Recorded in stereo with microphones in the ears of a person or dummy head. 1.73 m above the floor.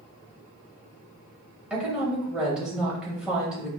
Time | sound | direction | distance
1.7 | a woman speaking | 5° right (ahead or behind) | 1.3 m